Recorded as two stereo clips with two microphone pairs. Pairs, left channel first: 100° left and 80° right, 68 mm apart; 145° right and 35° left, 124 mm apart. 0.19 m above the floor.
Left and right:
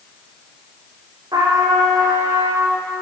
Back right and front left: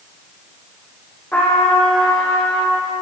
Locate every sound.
1.3 s a trumpet: 70° right, 2.5 m